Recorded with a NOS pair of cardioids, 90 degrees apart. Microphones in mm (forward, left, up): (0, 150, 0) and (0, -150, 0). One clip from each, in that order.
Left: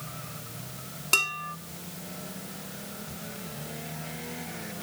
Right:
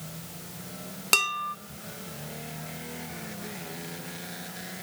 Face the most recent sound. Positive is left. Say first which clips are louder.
# right 1 dB
turn(degrees=-40)